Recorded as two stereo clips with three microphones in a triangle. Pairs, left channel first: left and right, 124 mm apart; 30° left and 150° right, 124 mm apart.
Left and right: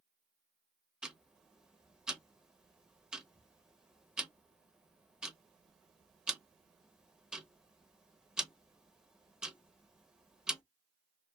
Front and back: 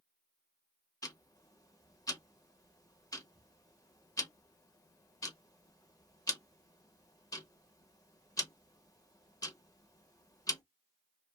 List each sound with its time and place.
1.0 s ticking: 10° right, 0.6 m